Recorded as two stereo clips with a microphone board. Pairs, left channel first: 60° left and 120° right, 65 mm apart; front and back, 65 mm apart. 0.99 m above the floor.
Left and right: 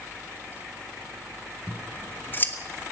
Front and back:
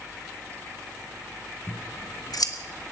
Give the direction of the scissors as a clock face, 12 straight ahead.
12 o'clock.